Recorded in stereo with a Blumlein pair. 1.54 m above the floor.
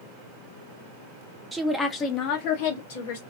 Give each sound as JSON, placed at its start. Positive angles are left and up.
{"t": 1.5, "sound": "a woman speaking", "azimuth_deg": -10, "distance_m": 0.5}